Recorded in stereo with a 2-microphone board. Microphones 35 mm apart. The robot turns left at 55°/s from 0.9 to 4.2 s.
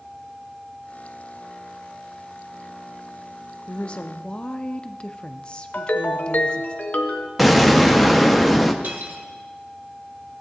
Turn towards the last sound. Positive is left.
turn(degrees=-75)  # may be behind; listen again after turning